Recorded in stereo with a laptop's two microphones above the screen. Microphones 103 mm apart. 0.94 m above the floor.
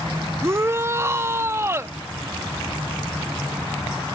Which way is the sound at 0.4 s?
25° right (ahead or behind).